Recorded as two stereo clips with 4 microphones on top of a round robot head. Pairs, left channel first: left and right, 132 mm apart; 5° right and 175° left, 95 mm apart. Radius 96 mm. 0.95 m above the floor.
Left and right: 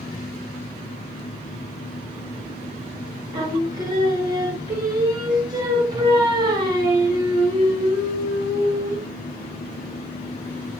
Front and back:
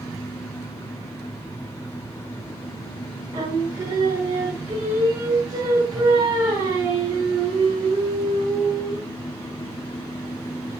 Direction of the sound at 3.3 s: 140° right.